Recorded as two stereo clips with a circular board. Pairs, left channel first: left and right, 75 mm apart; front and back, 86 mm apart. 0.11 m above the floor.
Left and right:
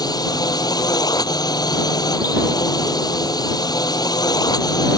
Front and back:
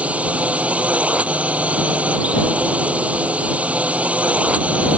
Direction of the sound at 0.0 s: 105° left.